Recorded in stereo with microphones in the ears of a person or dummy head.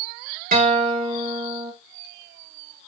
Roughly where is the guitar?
Right.